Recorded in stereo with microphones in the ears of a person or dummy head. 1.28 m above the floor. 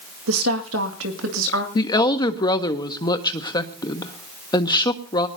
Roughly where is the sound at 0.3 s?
Right.